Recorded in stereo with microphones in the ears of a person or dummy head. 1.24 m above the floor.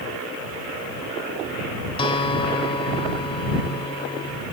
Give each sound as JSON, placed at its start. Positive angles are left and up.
{"t": 2.0, "sound": "a guitar", "side_deg": 25}